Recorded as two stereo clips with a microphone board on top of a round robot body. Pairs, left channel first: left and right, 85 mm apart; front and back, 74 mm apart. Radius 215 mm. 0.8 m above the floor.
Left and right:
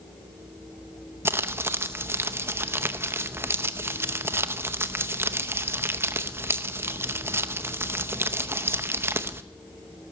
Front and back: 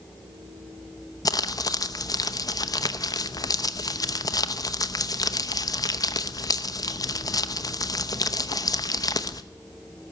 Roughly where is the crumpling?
Ahead right.